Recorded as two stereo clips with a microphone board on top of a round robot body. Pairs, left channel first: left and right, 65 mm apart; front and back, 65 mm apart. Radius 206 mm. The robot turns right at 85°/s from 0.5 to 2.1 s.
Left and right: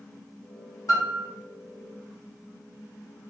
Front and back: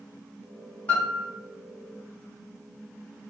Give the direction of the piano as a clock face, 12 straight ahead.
10 o'clock.